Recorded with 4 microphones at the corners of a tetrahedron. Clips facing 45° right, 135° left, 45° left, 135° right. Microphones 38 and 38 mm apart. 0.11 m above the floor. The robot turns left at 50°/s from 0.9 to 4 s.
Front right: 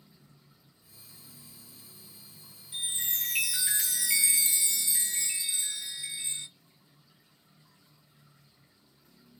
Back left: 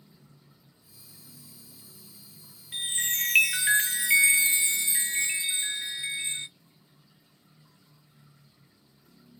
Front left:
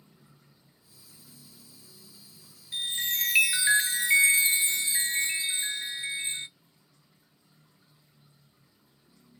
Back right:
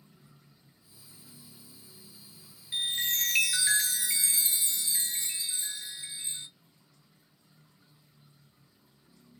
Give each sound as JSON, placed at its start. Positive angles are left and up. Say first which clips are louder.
{"t": 2.7, "sound": "a chime", "louder": "back left 5 dB, even", "azimuth_deg": 150, "distance_m": 0.5}